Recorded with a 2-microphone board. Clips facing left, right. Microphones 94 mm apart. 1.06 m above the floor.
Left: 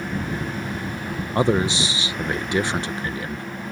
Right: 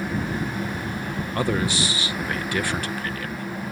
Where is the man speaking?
20° left (ahead or behind).